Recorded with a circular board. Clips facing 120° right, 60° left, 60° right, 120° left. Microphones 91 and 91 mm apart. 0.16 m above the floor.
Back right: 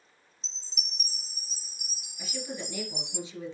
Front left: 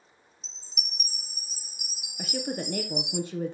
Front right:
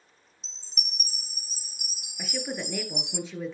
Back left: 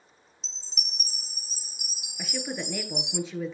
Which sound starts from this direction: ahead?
A chime, at 0.4 s.